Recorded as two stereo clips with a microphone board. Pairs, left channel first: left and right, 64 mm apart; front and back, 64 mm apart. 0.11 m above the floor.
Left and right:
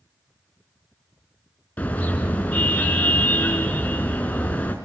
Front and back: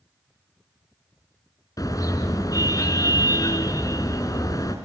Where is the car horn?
30° left, 6 m.